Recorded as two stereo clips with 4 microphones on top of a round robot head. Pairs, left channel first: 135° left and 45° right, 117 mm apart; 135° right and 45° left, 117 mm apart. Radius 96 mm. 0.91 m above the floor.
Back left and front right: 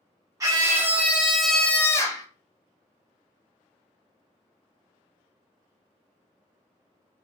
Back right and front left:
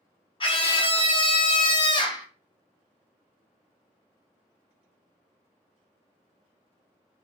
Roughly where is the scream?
Right.